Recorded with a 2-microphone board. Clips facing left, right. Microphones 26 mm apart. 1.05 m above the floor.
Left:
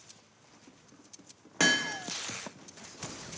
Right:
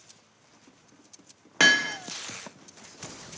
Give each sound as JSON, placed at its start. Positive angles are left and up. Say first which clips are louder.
{"t": 1.6, "sound": "hammering", "louder": "right 6 dB", "side_deg": -35, "distance_m": 0.7}